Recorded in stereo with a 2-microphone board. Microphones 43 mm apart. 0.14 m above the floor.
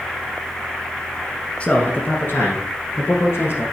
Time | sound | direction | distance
1.6 | a man speaking | 25° left (ahead or behind) | 1.3 m